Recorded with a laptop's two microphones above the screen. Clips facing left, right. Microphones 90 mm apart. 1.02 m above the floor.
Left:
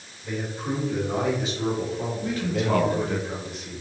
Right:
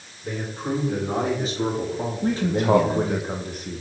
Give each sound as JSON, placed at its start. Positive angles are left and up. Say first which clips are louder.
{"t": 0.2, "sound": "a man speaking", "louder": "right 1 dB", "side_deg": -45, "distance_m": 4.0}
{"t": 2.2, "sound": "a man speaking", "louder": "right 6 dB", "side_deg": -45, "distance_m": 0.8}